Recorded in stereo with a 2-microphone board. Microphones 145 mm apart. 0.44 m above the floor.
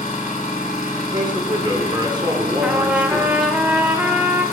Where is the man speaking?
30° right (ahead or behind), 0.8 m.